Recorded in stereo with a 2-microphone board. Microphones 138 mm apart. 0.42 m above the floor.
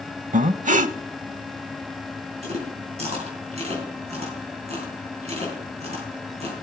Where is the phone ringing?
I don't hear a phone ringing.